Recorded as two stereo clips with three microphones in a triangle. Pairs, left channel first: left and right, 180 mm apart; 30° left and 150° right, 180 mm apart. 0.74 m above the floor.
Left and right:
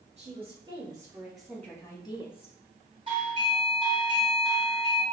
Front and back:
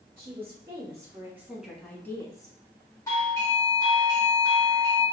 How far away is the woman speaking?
About 1.3 m.